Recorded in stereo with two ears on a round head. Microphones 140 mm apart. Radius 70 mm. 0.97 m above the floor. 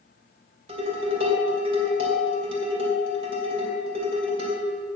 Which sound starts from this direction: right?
Dishes clattering, at 0.7 s.